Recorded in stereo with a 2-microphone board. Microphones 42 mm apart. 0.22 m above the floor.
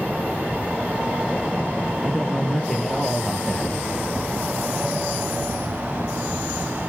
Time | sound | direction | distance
2.0 | a man speaking | 5° left (ahead or behind) | 4 m